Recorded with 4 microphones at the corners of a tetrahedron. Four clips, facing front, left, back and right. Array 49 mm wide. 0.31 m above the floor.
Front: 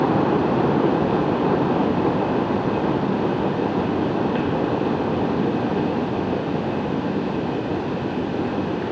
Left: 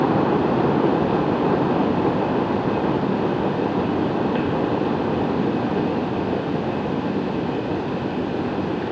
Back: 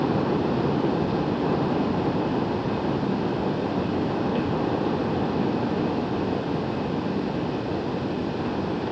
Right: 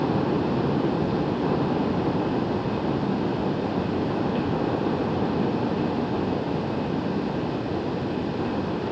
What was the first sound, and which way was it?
Only background noise.